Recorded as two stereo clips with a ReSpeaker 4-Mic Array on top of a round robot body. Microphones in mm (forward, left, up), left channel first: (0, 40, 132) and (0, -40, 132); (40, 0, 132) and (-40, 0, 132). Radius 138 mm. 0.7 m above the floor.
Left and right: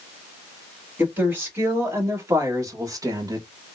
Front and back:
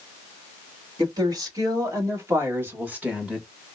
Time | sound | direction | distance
1.0 | a woman speaking | 155° right | 2.0 m